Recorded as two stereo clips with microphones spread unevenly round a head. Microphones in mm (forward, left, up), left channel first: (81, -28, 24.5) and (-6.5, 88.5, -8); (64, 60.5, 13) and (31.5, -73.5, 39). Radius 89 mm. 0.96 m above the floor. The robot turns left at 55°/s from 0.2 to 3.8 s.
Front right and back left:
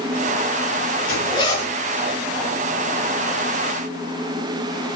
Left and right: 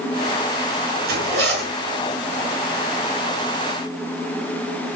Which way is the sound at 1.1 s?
105° right.